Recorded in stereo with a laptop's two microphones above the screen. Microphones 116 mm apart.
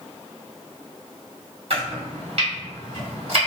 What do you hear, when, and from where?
1.7 s chopping: 60° right (ahead or behind), 1.2 m